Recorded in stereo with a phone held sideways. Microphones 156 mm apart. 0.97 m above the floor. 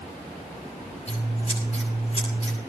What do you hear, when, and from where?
1.1 s scissors: 45° left (ahead or behind), 9 m